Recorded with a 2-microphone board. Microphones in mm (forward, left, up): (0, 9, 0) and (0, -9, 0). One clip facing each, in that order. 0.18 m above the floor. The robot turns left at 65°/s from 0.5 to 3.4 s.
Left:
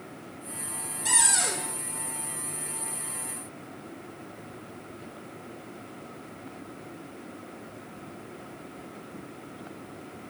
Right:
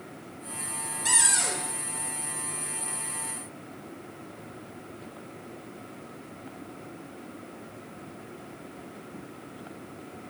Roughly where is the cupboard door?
Behind.